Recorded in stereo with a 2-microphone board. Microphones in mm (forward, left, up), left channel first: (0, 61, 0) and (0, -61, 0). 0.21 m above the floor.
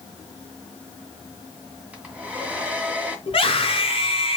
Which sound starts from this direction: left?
A scream, at 3.3 s.